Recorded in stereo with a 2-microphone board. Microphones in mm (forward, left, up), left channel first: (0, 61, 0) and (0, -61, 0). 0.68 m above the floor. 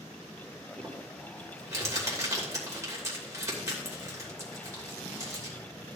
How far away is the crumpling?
About 3 m.